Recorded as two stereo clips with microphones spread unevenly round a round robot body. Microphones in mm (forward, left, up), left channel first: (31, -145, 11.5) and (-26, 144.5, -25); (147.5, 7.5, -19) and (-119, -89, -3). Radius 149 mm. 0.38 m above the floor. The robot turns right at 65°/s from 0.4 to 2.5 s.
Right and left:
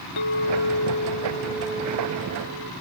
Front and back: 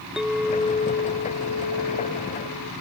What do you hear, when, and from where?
0.2 s a clink: 70° right; by 2.7 s 65° left